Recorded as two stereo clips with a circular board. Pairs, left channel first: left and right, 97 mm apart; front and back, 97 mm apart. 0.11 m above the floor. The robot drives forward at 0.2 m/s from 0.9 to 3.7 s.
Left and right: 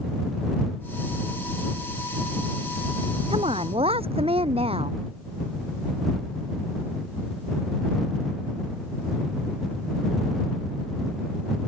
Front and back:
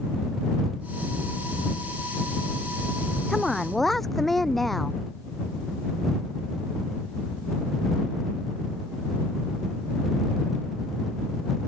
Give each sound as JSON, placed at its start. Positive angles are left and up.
{"t": 3.3, "sound": "a woman speaking", "azimuth_deg": -90}